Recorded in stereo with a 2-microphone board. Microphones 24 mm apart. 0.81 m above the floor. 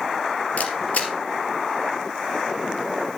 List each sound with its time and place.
0.6 s a camera shutter: 70° left (ahead or behind), 2.5 m